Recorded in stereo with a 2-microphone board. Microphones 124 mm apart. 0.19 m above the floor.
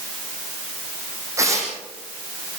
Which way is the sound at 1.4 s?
25° right (ahead or behind).